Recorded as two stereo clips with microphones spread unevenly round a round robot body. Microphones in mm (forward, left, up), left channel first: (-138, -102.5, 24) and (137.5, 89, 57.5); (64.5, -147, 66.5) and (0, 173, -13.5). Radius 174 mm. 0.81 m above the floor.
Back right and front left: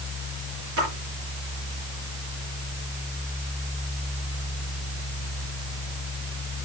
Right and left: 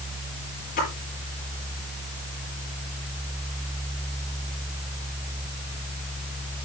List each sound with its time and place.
0.8 s a splash: 15° right, 7.5 m